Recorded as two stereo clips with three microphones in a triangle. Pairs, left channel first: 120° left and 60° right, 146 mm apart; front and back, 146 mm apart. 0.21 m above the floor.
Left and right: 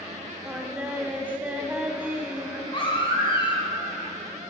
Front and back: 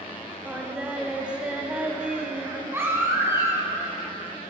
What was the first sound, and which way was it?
Singing, 115° right.